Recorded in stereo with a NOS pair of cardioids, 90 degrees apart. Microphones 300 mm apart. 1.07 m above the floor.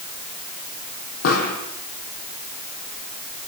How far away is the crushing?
No crushing in this recording.